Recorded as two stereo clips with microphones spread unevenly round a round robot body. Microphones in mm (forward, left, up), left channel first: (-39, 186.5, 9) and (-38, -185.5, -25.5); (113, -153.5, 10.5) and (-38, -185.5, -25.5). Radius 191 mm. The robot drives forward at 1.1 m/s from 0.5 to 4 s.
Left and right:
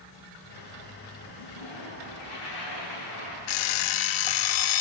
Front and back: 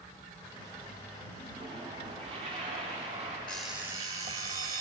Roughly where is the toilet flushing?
Left.